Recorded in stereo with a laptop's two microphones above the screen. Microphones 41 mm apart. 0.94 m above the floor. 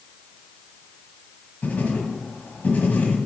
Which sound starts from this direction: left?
Writing, at 1.6 s.